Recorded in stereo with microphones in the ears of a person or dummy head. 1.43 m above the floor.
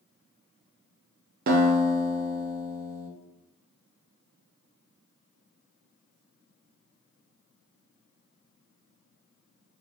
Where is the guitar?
45° right (ahead or behind), 0.5 m.